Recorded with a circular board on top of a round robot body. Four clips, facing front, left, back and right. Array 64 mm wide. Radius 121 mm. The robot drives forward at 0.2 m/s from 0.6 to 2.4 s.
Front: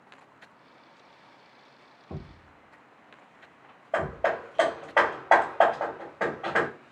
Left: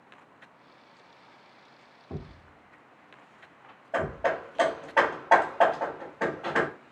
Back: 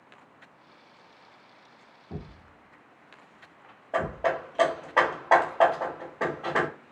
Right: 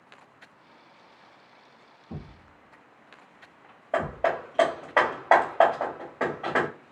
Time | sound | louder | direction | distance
2.1 | a thud | left 1 dB, back 1 dB | 40° left | 0.9 m
3.9 | hammering | right 2 dB, even | 85° right | 0.9 m